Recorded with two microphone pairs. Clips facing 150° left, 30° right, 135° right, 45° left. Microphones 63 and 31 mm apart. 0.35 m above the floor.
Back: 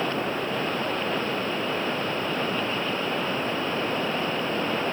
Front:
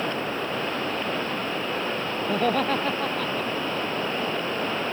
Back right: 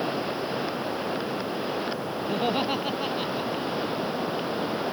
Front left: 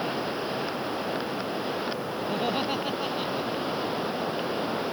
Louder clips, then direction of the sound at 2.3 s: Front 4 dB, back right 2 dB; 55° right.